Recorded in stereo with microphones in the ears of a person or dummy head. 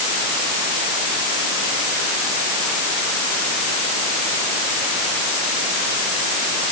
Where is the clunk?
I don't hear a clunk.